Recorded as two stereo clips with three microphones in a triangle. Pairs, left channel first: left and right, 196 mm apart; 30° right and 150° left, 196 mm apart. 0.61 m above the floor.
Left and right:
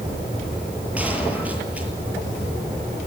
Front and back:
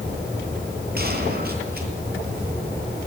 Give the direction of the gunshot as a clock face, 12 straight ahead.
6 o'clock.